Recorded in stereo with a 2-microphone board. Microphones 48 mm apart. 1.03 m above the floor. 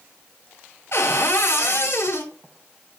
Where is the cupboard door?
70° left (ahead or behind), 1.8 m.